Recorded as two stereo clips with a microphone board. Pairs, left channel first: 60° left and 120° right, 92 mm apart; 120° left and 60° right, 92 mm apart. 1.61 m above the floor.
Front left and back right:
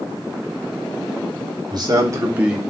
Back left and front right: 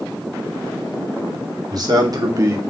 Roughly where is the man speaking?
Right.